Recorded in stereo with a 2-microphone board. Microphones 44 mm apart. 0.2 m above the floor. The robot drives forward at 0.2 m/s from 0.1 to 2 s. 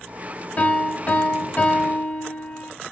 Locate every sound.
0.6 s a piano: 35° left (ahead or behind), 1.4 m